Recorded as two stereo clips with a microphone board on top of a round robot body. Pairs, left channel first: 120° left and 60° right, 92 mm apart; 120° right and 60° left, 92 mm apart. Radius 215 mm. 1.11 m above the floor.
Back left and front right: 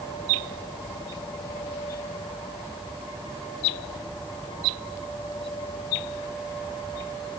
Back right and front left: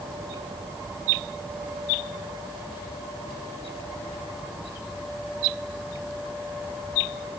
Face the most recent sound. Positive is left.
No sound to turn to.